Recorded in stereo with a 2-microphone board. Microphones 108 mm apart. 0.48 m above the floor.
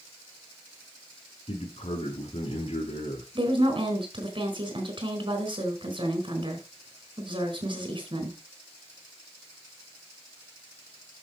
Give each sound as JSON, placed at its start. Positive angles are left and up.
{"t": 1.5, "sound": "a man speaking", "side_deg": 70, "distance_m": 6.5}
{"t": 3.4, "sound": "a woman speaking", "side_deg": -50, "distance_m": 4.0}